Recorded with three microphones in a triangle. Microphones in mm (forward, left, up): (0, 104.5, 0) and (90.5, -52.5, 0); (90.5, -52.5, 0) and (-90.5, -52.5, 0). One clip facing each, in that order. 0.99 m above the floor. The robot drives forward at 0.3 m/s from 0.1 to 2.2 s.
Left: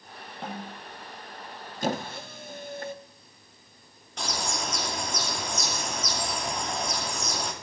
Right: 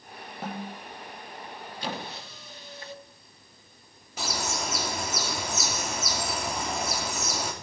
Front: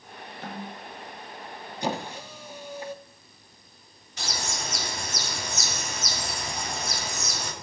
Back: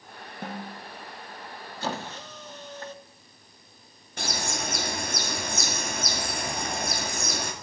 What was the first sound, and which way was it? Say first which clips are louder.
A snare drum: right 2 dB, back 1 dB; 140° right.